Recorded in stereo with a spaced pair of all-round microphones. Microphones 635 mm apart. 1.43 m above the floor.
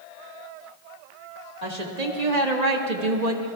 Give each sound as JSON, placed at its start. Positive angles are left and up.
{"t": 1.6, "sound": "a woman speaking", "side_deg": -85, "distance_m": 2.0}